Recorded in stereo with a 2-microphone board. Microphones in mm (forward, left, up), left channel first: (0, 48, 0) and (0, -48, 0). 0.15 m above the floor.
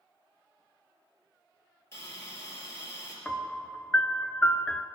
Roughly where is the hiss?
Left.